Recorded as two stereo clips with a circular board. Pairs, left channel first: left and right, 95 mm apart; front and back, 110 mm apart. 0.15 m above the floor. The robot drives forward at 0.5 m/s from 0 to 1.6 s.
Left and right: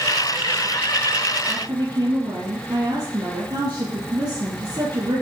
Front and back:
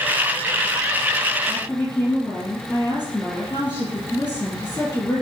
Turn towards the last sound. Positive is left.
turn(degrees=-65)